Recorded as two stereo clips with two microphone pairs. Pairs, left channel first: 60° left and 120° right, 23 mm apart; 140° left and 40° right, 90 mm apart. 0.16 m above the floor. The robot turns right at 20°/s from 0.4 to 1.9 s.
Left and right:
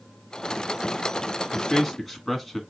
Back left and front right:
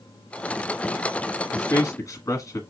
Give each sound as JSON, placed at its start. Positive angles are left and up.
{"t": 1.5, "sound": "a man speaking", "azimuth_deg": 135, "distance_m": 1.2}